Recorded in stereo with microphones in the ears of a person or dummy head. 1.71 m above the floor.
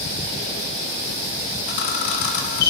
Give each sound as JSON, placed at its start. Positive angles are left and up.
{"t": 1.7, "sound": "a camera shutter", "side_deg": 65, "distance_m": 1.2}